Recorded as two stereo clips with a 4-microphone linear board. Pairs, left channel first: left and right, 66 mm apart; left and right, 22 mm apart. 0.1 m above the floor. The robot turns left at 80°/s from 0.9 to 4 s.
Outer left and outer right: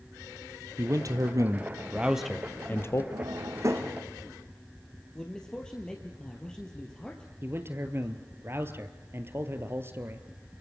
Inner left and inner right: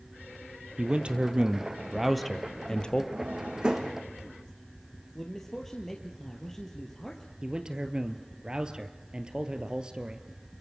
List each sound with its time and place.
0.8 s a man speaking: 70° right, 2.0 m; by 3.0 s 120° left, 2.0 m
3.1 s a drawer: 80° right, 3.5 m; by 4.0 s 25° right (ahead or behind), 3.5 m
5.2 s a man speaking: 10° left (ahead or behind), 2.5 m
7.4 s a man speaking: 40° right (ahead or behind), 2 m